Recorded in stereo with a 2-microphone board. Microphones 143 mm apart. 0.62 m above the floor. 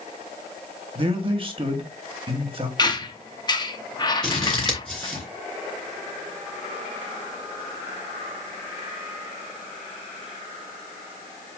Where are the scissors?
5° left (ahead or behind), 2.5 m.